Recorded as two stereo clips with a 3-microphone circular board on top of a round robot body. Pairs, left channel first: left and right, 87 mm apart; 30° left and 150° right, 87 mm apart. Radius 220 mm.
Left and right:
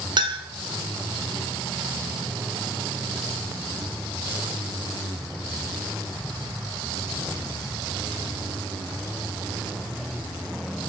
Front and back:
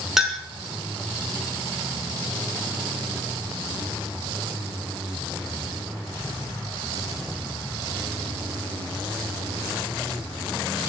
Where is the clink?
65° right, 1.5 m.